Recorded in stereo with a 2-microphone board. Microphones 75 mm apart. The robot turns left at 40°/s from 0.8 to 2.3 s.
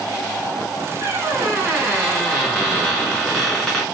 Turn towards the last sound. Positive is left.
turn(degrees=180)